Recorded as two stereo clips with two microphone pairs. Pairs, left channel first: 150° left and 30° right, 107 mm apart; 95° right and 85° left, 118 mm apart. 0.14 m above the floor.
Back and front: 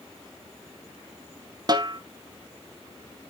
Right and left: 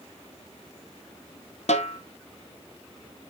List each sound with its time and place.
1.7 s a snare drum: 80° right, 1.0 m